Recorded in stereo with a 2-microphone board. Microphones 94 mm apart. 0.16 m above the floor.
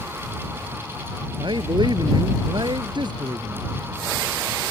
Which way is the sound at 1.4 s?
55° right (ahead or behind).